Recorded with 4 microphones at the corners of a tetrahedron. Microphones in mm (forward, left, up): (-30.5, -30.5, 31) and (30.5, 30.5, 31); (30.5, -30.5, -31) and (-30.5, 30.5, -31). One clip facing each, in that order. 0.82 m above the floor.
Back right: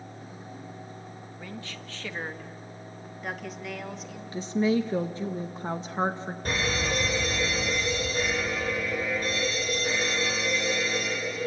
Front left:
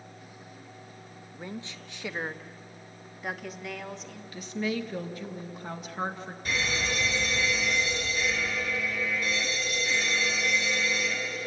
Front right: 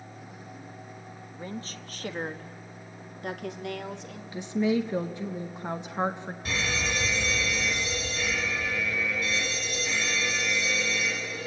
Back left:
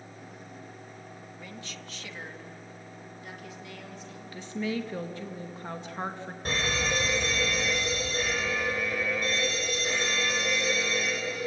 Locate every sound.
1.3 s a woman speaking: 5° right, 1.0 m; by 4.2 s 50° right, 2 m
4.3 s a woman speaking: 100° right, 0.9 m
6.5 s an alarm: straight behind, 3.5 m